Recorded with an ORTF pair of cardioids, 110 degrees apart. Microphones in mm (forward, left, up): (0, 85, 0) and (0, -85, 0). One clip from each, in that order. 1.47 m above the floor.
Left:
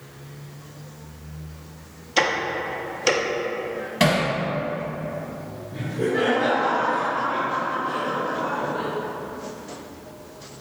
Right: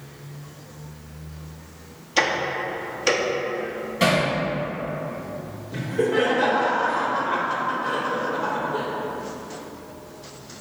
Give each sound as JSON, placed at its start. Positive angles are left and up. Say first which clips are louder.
{"t": 2.2, "sound": "ticking", "louder": "even", "azimuth_deg": 10, "distance_m": 0.6}
{"t": 4.0, "sound": "hammering", "louder": "even", "azimuth_deg": 55, "distance_m": 1.9}
{"t": 5.7, "sound": "laughter", "louder": "right 2 dB", "azimuth_deg": -70, "distance_m": 1.5}